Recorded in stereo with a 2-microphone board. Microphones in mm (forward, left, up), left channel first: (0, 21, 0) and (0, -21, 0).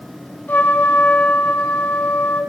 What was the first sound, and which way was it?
A trumpet, 35° left (ahead or behind).